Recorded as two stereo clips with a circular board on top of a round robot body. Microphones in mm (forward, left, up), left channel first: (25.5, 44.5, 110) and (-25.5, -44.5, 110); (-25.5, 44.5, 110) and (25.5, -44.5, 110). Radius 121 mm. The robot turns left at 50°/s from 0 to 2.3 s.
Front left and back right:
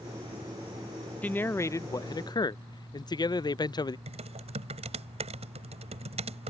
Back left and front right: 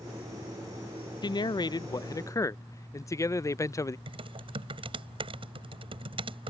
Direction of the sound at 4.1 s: 100° right.